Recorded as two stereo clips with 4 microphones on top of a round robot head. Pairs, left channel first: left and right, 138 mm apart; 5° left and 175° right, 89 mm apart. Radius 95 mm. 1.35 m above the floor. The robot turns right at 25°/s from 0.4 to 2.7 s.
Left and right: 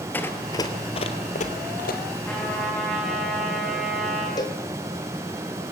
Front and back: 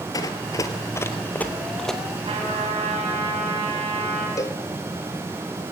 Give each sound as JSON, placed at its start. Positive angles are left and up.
{"t": 0.1, "sound": "running footsteps", "azimuth_deg": 20, "distance_m": 1.6}
{"t": 2.2, "sound": "a trumpet", "azimuth_deg": 170, "distance_m": 7.0}
{"t": 4.4, "sound": "a cowbell", "azimuth_deg": 40, "distance_m": 1.3}